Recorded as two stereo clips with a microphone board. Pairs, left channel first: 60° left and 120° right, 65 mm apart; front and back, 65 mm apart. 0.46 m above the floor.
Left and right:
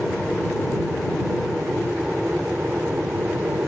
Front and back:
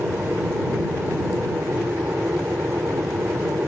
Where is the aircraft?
140° left; by 3.7 s 160° right.